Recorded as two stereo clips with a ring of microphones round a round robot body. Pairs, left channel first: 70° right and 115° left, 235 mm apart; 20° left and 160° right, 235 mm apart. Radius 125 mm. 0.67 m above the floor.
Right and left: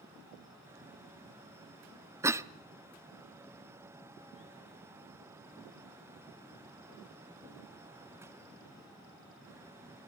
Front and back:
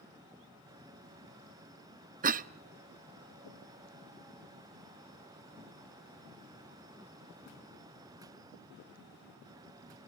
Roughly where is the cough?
Behind.